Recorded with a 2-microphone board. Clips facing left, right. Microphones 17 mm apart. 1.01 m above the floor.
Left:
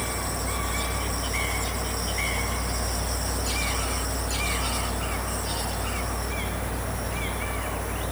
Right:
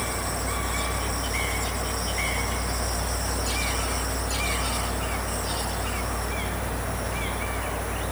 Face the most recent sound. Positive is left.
No sound to turn to.